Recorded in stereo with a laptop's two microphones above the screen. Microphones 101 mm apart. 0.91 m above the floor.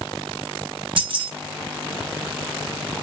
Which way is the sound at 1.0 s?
55° right (ahead or behind).